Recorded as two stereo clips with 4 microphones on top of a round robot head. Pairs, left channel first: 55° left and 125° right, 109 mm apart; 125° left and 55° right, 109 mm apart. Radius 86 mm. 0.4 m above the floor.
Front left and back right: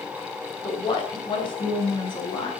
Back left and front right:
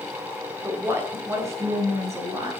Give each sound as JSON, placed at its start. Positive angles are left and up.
{"t": 0.6, "sound": "a woman speaking", "azimuth_deg": 15, "distance_m": 2.5}